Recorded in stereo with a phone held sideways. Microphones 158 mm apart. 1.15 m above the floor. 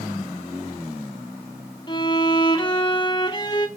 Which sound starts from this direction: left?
A violin, at 1.9 s.